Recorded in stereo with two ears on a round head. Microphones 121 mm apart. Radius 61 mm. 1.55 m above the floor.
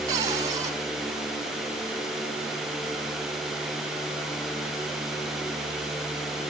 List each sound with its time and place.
0.1 s a cupboard door: 30° right (ahead or behind), 4 m